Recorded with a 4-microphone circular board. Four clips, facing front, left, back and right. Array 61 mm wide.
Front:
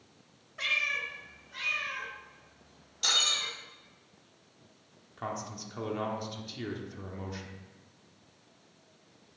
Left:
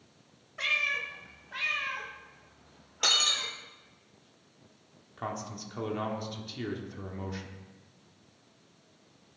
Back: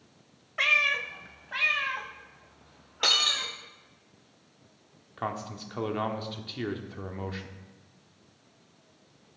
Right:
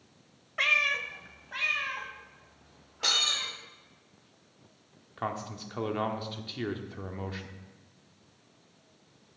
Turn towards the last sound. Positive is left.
turn(degrees=-135)